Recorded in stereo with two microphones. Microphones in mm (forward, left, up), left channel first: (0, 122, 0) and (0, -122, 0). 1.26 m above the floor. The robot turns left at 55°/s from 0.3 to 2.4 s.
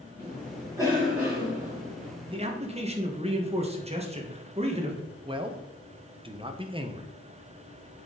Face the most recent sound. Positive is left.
turn(degrees=-20)  # may be behind; listen again after turning